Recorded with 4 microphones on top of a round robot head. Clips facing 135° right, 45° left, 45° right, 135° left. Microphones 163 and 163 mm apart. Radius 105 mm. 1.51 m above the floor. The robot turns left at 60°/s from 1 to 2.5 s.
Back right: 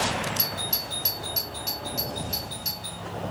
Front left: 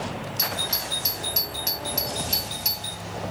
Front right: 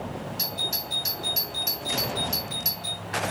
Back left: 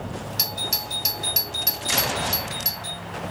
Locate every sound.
0.4 s a doorbell: 125° left, 2 m; by 3.0 s 35° left, 2 m